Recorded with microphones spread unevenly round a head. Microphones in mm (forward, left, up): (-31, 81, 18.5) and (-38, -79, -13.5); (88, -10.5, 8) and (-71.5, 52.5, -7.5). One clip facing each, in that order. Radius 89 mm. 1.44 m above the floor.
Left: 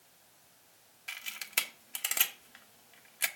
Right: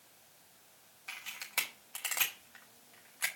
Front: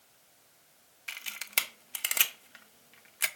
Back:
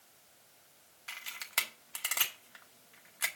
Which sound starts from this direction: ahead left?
A camera shutter, at 1.1 s.